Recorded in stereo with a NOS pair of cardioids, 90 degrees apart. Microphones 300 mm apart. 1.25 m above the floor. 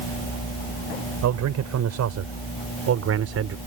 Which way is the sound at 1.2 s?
65° right.